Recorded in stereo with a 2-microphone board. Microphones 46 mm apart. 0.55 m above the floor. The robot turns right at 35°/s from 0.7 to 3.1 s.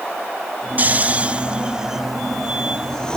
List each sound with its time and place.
0.8 s snoring: 35° right (ahead or behind), 0.5 m; by 3.2 s 15° left (ahead or behind), 0.5 m